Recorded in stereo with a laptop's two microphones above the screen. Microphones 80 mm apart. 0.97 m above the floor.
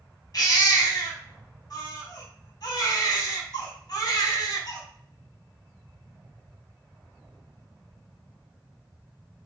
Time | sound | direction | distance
0.3 | a baby crying | 55° left (ahead or behind) | 4.5 m